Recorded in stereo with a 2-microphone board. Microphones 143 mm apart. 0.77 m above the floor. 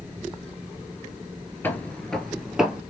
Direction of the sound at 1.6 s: 15° left (ahead or behind).